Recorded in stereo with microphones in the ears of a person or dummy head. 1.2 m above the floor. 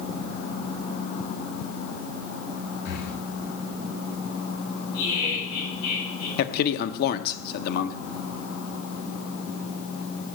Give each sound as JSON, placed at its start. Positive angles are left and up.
{"t": 2.9, "sound": "breathing", "side_deg": 50, "distance_m": 1.3}
{"t": 4.9, "sound": "laughter", "side_deg": 55, "distance_m": 6.0}
{"t": 6.4, "sound": "a man speaking", "side_deg": 55, "distance_m": 0.7}